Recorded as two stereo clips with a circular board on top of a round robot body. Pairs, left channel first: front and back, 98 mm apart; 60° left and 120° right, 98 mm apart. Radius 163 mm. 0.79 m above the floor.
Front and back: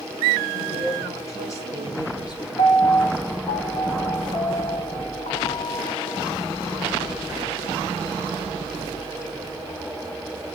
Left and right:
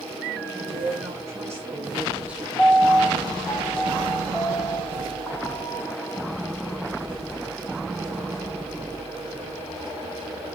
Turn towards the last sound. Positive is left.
turn(degrees=-20)